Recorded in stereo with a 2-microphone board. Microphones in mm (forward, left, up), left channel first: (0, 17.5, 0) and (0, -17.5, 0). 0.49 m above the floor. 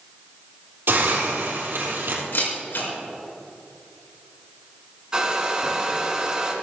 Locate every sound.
0.9 s a hiss: 75° right (ahead or behind), 3.5 m
2.3 s a camera shutter: 75° left (ahead or behind), 4.5 m
5.1 s a hair dryer: 20° right (ahead or behind), 1.9 m